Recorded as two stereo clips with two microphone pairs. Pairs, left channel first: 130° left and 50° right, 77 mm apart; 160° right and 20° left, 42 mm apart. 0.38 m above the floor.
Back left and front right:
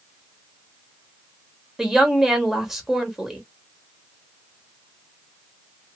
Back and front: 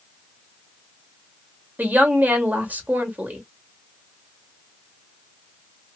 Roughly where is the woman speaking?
Ahead left.